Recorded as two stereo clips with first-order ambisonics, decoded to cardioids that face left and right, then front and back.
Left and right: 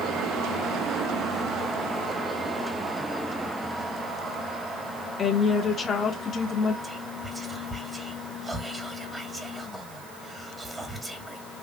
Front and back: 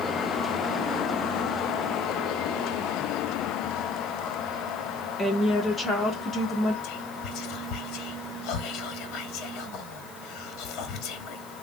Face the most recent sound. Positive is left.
turn(degrees=-15)